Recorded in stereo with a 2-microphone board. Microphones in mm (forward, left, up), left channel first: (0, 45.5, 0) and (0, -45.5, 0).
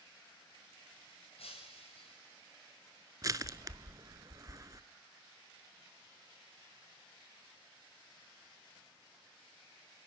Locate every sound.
1.4 s breaking glass: 80° left, 6 m
3.2 s crushing: 35° right (ahead or behind), 0.5 m